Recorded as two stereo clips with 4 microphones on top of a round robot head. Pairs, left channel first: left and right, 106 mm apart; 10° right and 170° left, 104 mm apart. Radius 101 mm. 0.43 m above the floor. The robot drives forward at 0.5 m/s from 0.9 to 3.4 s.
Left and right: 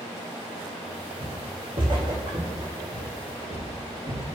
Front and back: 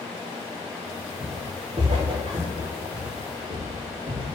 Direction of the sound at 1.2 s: 110° right.